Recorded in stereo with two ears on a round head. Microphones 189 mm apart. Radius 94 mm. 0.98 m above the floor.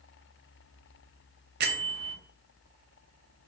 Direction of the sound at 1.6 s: 45° right (ahead or behind).